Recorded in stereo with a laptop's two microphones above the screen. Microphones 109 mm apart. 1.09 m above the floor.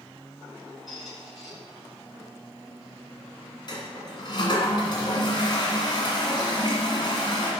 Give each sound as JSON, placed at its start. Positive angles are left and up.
{"t": 0.9, "sound": "a squeak", "side_deg": 0, "distance_m": 3.0}
{"t": 3.7, "sound": "a toilet flushing", "side_deg": 45, "distance_m": 1.9}